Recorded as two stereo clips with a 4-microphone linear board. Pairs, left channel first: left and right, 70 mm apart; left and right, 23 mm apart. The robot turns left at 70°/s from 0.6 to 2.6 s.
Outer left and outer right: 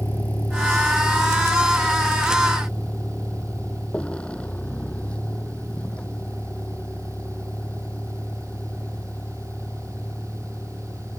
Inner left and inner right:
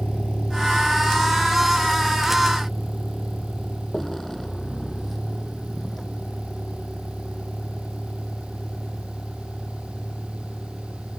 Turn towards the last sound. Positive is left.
turn(degrees=15)  # may be behind; listen again after turning